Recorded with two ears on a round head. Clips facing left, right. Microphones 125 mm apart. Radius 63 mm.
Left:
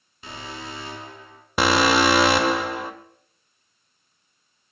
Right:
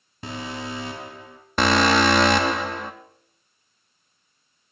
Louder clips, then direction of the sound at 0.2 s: Right 5 dB; 35° right (ahead or behind).